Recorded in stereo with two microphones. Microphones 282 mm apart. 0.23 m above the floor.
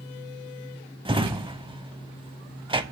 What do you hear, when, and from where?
1.1 s a drawer: 20° right (ahead or behind), 0.6 m